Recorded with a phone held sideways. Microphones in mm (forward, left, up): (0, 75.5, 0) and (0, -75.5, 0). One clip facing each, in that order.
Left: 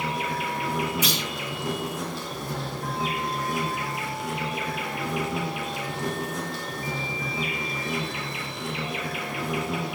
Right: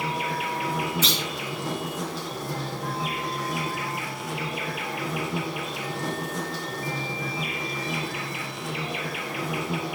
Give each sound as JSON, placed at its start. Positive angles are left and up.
{"t": 0.0, "sound": "an insect", "side_deg": 0, "distance_m": 1.7}
{"t": 1.0, "sound": "a clunk", "side_deg": 15, "distance_m": 2.5}